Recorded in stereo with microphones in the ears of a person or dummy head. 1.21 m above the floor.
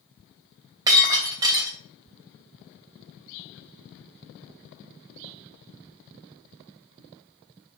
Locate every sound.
0.9 s breaking glass: 25° right (ahead or behind), 3 m